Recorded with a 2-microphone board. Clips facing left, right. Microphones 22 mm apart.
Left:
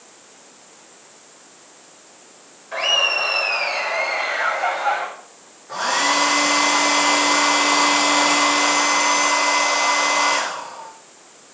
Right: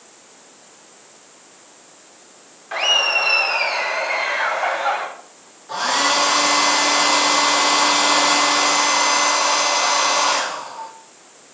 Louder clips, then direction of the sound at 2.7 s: Right 1 dB; 85° right.